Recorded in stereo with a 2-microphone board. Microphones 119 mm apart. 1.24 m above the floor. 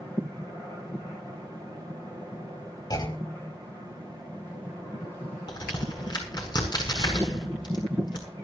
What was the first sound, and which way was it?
A clunk, 35° left (ahead or behind).